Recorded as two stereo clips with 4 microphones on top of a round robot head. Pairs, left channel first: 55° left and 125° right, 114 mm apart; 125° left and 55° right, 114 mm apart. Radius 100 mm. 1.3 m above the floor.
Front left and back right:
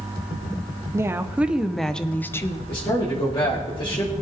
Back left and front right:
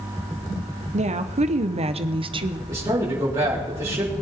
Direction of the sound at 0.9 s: 60° right.